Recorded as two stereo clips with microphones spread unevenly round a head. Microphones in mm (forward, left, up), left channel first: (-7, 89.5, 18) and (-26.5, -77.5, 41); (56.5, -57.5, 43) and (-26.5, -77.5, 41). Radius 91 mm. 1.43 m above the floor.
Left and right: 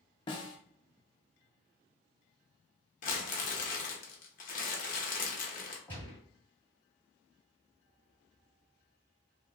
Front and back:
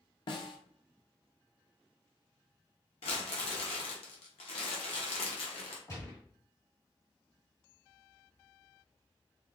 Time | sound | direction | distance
0.3 | a snare drum | 15° left | 0.6 m
3.0 | crumpling | 35° left | 0.9 m
5.9 | a gunshot | straight ahead | 1.4 m